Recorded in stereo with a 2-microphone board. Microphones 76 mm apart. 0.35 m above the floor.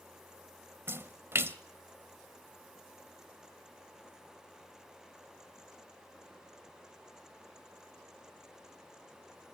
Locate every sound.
0.9 s a splash: 30° right (ahead or behind), 0.9 m